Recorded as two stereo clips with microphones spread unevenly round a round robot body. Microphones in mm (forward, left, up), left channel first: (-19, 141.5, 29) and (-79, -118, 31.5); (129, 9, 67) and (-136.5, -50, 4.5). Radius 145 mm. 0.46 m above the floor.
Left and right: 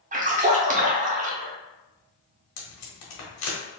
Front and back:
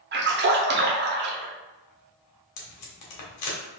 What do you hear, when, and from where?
0.1 s a splash: 155° right, 0.9 m
2.6 s tape being pulled: 40° left, 1.0 m